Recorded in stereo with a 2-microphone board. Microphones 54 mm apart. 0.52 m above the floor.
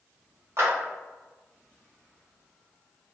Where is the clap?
50° right (ahead or behind), 1.4 m.